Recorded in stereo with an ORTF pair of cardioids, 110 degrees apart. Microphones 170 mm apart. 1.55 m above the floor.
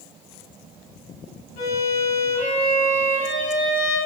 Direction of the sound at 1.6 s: 60° left.